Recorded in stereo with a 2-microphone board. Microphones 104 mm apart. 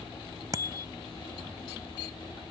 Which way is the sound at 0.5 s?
35° right (ahead or behind).